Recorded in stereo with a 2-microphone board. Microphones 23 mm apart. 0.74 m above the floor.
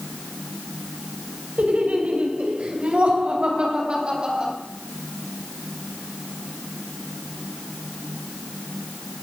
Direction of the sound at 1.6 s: 70° right (ahead or behind).